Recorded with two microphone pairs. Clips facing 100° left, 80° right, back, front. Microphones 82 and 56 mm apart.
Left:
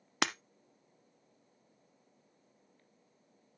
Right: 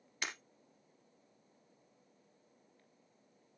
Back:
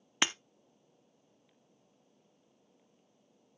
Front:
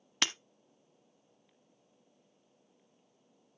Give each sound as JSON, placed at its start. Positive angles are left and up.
{"t": 0.2, "sound": "breaking glass", "azimuth_deg": 110, "distance_m": 0.5}